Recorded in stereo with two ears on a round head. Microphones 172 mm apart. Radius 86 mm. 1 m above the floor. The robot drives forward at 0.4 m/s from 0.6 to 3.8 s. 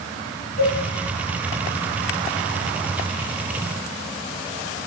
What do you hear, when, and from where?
0.6 s a cowbell: 45° left (ahead or behind), 6.5 m